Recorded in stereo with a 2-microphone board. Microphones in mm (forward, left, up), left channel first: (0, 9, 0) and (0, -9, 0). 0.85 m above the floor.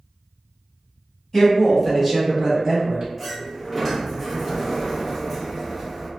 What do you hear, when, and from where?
1.3 s a woman speaking: 25° left (ahead or behind), 1.4 m; by 3.1 s 55° right (ahead or behind), 1.1 m
3.2 s a sliding door: centre (ahead or behind), 0.7 m